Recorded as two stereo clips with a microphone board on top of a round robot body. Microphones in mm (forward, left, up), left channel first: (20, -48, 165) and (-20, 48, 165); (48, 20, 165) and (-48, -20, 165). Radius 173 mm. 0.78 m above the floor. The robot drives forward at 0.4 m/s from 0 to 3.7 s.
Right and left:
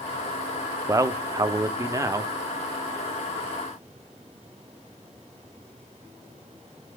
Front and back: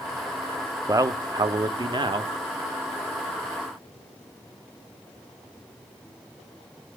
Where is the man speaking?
160° left, 0.9 m; by 2.3 s 170° left, 1.3 m.